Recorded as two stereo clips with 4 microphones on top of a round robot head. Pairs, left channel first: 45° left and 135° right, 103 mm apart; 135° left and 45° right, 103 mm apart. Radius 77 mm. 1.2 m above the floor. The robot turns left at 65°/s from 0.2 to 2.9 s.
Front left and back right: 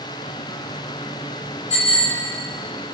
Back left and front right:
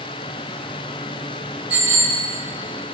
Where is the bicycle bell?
30° left, 4.5 m; by 2.2 s 5° right, 4.5 m.